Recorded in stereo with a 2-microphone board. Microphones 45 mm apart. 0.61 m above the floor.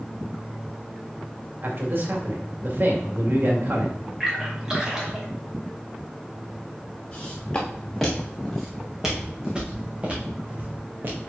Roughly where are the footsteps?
Centre.